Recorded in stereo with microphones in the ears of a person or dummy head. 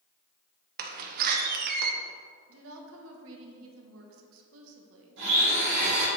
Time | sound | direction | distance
0.8 | a door slam | 55° right (ahead or behind) | 0.8 m
2.5 | a woman speaking | 75° right (ahead or behind) | 1.3 m
5.2 | a blender | 70° right (ahead or behind) | 2.5 m